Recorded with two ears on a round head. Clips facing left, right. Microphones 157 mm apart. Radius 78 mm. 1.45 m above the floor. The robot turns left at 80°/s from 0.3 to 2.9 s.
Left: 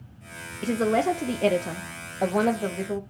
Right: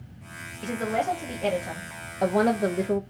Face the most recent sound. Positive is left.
turn(degrees=-50)